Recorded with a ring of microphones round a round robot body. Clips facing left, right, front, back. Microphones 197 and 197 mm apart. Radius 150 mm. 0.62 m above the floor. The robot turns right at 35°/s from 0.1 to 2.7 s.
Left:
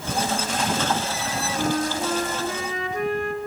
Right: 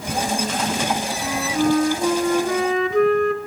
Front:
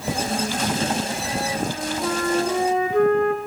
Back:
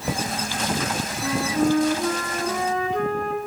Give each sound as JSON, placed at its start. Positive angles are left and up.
{"t": 1.2, "sound": "a flute", "azimuth_deg": -140, "distance_m": 2.5}